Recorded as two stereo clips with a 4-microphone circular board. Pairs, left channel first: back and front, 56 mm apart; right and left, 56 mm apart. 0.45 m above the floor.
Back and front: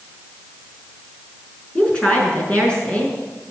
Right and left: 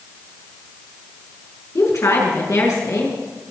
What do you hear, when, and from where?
1.8 s a woman speaking: 110° right, 6 m